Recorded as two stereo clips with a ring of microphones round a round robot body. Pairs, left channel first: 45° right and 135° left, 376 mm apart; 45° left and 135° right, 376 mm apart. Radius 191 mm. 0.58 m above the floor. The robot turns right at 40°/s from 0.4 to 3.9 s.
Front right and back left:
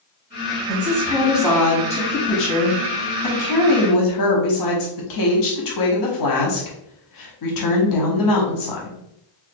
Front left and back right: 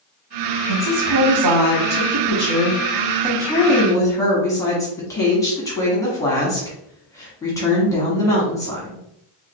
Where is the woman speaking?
165° right, 1.0 m; by 9.0 s 35° right, 1.0 m.